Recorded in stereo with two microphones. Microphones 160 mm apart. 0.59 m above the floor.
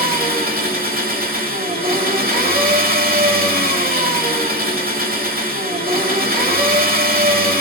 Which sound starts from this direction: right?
An engine running, at 0.0 s.